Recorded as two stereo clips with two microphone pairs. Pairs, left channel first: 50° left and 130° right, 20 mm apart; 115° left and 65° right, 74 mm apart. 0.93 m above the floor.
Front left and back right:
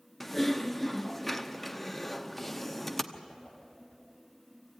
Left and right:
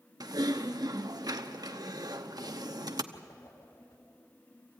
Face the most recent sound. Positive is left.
turn(degrees=80)